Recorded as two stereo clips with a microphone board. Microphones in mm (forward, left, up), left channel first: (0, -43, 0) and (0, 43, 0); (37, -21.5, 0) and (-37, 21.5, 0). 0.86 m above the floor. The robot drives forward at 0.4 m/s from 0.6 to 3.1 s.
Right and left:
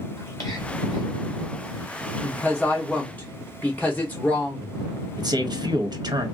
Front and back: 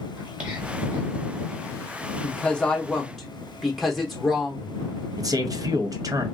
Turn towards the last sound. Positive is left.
turn(degrees=115)